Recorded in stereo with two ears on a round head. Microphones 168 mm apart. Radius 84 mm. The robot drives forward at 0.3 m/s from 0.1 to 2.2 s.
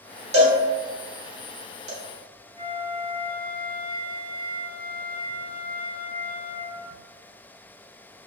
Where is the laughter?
I don't hear laughter.